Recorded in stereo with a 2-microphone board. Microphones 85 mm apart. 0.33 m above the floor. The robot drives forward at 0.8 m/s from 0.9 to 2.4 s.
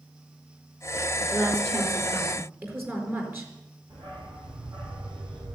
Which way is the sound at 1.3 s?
30° right (ahead or behind).